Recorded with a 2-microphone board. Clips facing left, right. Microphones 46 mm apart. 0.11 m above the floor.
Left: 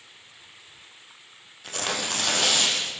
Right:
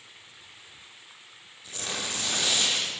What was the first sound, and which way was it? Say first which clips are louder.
Tearing paper: left 5 dB; 70° left (ahead or behind).